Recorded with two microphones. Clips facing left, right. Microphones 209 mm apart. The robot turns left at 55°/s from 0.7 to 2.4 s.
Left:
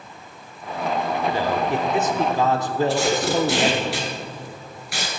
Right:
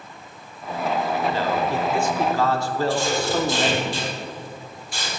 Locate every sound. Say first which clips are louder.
1.3 s a man speaking: left 1 dB; 15° left (ahead or behind), 0.7 m; by 3.9 s 20° left (ahead or behind), 0.7 m
2.9 s tape being pulled: left 1 dB; 80° left, 1.9 m